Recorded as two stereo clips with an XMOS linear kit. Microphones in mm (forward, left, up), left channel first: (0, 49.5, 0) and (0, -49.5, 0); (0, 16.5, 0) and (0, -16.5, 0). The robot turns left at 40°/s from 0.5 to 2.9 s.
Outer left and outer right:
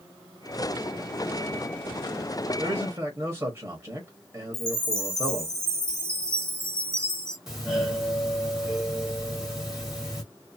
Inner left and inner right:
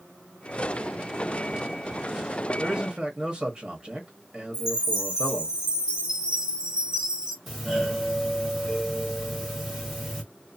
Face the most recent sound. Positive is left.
turn(degrees=-5)  # may be behind; listen again after turning